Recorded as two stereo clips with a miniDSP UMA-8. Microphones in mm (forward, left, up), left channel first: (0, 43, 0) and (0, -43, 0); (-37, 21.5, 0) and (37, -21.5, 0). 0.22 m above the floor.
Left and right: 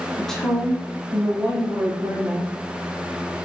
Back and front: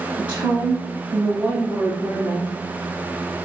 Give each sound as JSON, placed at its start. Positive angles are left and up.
{"t": 0.2, "sound": "a woman speaking", "azimuth_deg": 25, "distance_m": 1.1}